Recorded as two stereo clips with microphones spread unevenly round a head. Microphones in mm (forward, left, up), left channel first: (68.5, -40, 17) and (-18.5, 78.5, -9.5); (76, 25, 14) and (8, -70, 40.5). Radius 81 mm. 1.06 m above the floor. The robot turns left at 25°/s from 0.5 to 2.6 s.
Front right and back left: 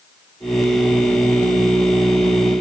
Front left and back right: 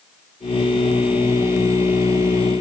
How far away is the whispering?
I don't hear whispering.